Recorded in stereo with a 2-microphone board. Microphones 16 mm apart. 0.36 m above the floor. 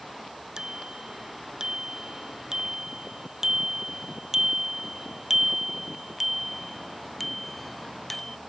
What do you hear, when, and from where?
0.6 s a bicycle bell: 45° right (ahead or behind); by 8.4 s 20° left (ahead or behind)